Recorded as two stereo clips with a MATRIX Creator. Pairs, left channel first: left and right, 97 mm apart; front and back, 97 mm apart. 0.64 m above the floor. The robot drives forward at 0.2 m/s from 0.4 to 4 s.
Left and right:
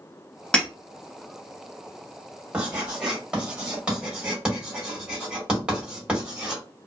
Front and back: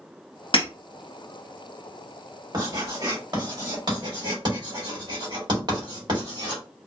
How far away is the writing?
About 1.6 m.